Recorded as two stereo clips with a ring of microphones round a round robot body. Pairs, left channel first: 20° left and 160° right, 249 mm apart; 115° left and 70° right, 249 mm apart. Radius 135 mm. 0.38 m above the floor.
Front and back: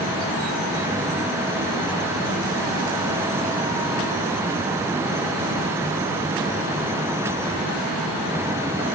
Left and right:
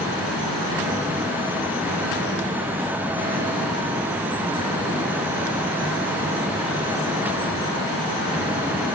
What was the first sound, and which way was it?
Only background noise.